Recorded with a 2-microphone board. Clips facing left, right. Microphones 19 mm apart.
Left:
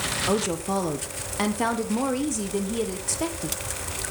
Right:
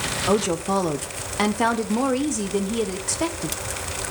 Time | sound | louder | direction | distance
0.3 | a woman speaking | right 6 dB | 10° right (ahead or behind) | 0.8 m